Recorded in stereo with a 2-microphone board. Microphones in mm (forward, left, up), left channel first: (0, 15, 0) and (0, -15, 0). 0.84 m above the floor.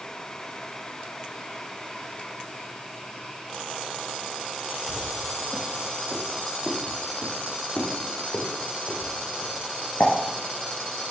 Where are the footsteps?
25° left (ahead or behind), 4.5 m; by 10.1 s 75° left (ahead or behind), 3.5 m.